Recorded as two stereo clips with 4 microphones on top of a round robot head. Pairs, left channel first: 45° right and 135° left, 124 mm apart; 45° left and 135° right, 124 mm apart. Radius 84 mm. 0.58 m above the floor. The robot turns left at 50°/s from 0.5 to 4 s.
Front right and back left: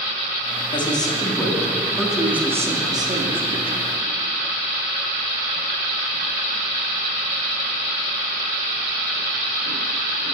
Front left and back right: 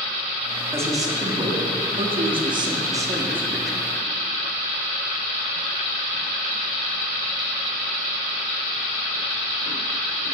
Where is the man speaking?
70° right, 1.0 m; by 3.9 s 130° left, 1.0 m.